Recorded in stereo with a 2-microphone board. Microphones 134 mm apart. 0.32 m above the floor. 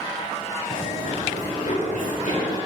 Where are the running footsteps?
70° left (ahead or behind), 1.2 m; by 2.5 s 75° left (ahead or behind), 4 m.